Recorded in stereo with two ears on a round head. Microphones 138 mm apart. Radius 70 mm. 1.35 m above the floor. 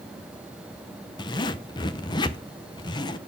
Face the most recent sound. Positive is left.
turn(degrees=25)  # may be behind; listen again after turning